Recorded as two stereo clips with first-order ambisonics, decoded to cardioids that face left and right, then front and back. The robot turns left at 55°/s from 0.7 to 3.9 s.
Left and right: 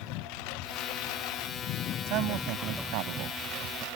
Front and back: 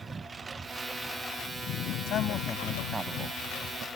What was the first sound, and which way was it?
A lawn mower, 105° left.